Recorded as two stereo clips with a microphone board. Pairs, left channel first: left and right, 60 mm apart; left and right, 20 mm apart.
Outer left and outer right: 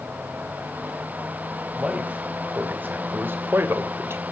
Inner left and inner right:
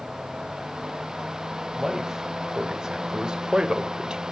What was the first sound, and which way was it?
A man speaking, 25° right (ahead or behind).